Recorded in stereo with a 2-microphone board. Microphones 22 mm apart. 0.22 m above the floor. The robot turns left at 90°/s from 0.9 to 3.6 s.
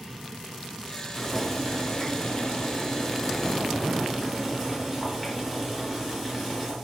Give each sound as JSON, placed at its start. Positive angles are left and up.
{"t": 1.1, "sound": "boiling", "azimuth_deg": -160, "distance_m": 1.2}